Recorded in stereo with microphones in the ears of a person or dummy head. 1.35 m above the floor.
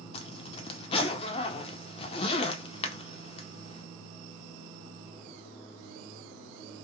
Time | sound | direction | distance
0.1 | a zipper | 35° left (ahead or behind) | 0.6 m